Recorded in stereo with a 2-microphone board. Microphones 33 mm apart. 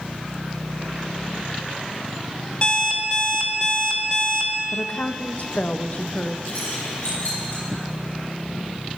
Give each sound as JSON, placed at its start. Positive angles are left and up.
{"t": 2.6, "sound": "an alarm clock", "side_deg": 35, "distance_m": 0.9}
{"t": 4.7, "sound": "a woman speaking", "side_deg": 50, "distance_m": 0.7}
{"t": 6.5, "sound": "keys jangling", "side_deg": 70, "distance_m": 5.5}